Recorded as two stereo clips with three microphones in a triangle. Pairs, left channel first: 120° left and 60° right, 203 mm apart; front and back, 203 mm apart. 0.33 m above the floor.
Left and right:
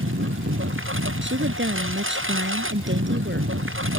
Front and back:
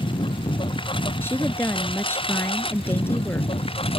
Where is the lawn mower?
65° right; by 4.0 s 60° right.